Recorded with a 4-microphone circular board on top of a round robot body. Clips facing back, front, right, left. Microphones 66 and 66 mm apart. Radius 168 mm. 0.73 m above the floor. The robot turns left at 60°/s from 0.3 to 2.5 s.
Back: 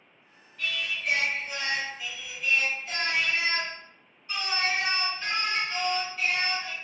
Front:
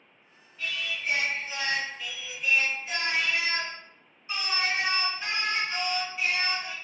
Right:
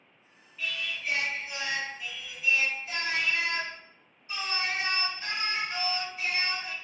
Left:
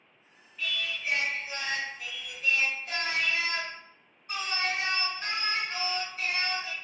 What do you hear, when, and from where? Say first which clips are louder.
0.6 s singing: back 1 dB, even; 170° right, 2.0 m; by 6.7 s 75° left, 2.0 m